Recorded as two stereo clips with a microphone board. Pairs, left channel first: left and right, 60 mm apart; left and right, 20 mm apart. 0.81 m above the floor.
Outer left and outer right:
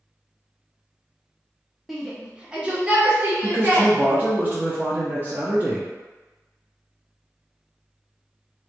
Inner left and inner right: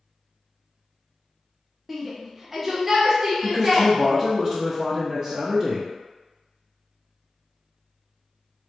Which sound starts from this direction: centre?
A shout, at 1.9 s.